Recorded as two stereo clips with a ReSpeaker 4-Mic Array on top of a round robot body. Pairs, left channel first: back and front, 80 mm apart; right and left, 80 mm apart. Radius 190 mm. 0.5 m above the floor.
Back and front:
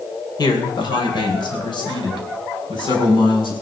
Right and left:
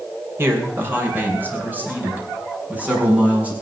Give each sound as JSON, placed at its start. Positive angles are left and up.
{"t": 0.4, "sound": "a man speaking", "azimuth_deg": 150, "distance_m": 3.5}